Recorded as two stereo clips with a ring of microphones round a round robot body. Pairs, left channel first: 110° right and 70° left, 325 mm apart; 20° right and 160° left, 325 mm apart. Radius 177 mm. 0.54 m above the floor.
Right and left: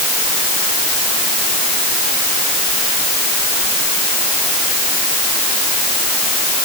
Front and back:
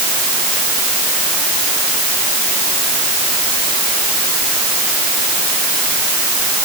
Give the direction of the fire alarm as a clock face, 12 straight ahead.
No fire alarm in this recording.